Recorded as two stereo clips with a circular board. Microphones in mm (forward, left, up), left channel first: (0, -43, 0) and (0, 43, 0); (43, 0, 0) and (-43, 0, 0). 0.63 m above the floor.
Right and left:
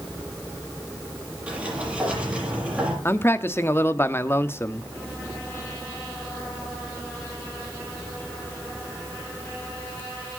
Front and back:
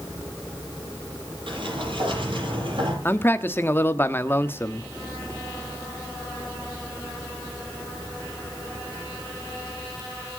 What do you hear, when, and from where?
1.5 s a sliding door: 165° left, 8 m
3.0 s a man speaking: 45° right, 1.1 m